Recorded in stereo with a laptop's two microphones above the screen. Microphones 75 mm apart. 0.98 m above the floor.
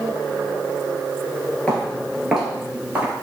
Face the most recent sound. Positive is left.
turn(degrees=-25)  # may be behind; listen again after turning